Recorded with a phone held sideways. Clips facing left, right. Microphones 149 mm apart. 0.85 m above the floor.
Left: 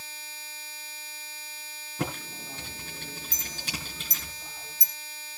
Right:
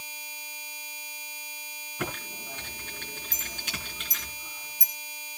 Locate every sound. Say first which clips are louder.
2.0 s typing on a keyboard: left 2 dB; 35° left (ahead or behind), 5.5 m
3.3 s a clink: left 1 dB; 45° left (ahead or behind), 3 m